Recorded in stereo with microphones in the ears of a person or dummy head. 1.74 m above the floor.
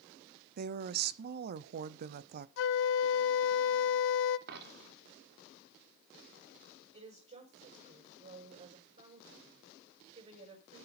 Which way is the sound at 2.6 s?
75° left (ahead or behind).